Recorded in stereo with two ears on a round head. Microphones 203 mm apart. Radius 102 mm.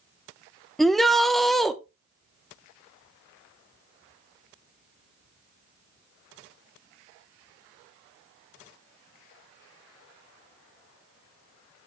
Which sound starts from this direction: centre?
A shout, at 0.8 s.